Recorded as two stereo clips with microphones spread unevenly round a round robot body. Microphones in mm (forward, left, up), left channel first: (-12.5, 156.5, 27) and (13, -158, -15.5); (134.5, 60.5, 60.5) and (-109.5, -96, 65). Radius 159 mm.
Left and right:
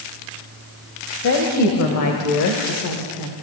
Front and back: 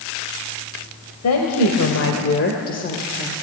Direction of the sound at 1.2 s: 55° left.